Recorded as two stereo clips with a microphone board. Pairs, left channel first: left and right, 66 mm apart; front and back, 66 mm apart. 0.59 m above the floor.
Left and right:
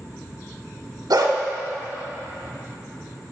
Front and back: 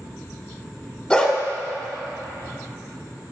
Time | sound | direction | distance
1.1 | a dog barking | 75° right | 0.8 m